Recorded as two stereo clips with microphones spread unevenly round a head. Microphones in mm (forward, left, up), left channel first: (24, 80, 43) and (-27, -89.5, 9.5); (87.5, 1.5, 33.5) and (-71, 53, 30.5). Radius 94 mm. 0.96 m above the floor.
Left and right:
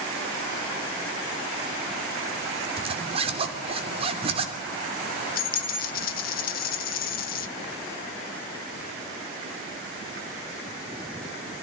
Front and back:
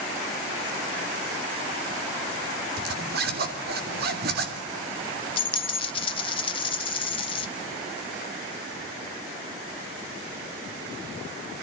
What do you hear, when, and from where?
2.8 s a zipper: 165° right, 3 m
5.4 s a dropped coin: 40° left, 1.2 m